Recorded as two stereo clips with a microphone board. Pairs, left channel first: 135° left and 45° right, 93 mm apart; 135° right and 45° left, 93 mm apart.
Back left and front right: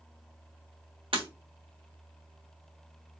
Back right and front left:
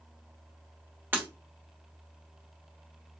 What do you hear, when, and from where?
1.1 s breaking glass: 25° right, 1.2 m